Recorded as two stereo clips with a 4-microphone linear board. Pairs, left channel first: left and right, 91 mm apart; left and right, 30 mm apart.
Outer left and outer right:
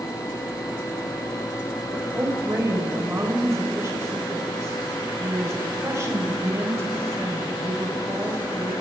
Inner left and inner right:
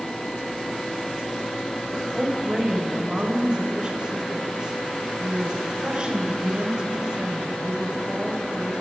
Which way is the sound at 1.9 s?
30° right (ahead or behind).